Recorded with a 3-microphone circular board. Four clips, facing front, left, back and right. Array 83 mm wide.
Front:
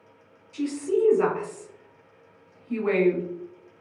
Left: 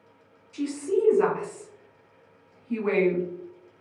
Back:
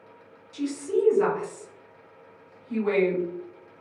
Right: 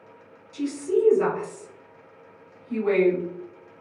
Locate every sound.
0.5 s a woman speaking: 35° left, 1.4 m